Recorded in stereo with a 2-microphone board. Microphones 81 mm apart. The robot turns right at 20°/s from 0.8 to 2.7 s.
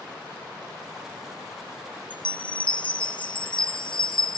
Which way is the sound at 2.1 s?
75° left (ahead or behind).